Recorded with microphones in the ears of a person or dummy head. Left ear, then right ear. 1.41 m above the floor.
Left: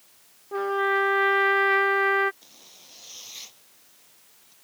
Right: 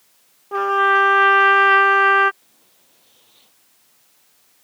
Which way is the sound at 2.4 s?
70° left (ahead or behind).